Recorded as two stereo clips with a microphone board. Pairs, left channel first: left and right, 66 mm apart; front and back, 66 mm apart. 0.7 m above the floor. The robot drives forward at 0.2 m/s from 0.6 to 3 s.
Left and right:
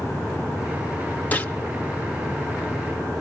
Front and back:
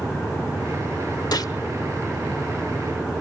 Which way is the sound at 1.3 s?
25° left.